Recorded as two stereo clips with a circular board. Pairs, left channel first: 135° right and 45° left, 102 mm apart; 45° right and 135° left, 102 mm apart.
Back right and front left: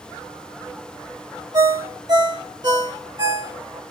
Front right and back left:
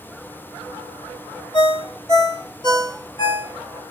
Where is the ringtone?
Straight ahead, 2.5 m.